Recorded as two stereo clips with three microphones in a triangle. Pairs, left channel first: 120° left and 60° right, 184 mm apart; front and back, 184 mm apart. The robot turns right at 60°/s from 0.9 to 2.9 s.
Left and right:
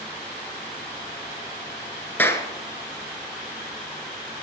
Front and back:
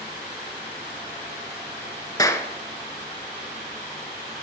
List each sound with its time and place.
2.2 s a clap: 50° left, 1.0 m; by 2.5 s 70° left, 1.0 m